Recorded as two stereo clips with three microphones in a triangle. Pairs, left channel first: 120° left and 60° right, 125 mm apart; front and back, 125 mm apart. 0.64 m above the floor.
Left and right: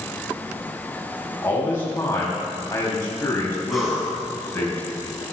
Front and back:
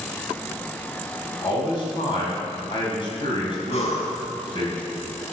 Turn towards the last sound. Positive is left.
turn(degrees=30)